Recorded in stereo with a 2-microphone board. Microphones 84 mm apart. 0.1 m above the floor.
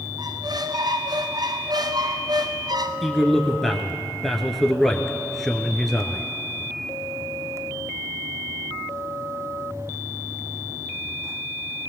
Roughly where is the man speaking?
Centre.